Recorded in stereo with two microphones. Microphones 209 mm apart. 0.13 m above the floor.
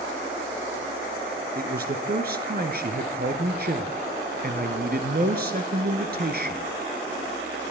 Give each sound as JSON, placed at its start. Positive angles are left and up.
{"t": 1.6, "sound": "a man speaking", "side_deg": -50, "distance_m": 1.6}